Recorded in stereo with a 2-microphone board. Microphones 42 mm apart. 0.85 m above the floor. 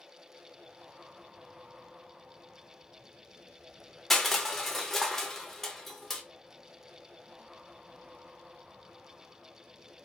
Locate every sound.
4.1 s crushing: 5° left (ahead or behind), 0.6 m